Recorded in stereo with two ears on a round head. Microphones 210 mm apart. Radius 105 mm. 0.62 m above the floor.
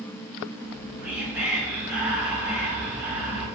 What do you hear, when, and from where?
0.6 s whispering: 5° right (ahead or behind), 0.9 m